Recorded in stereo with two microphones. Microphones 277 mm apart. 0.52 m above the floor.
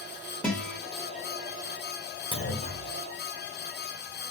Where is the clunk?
50° left (ahead or behind), 0.9 m.